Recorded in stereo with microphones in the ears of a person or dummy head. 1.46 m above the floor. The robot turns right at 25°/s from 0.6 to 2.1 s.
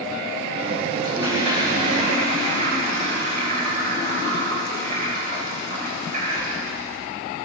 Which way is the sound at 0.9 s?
20° right (ahead or behind).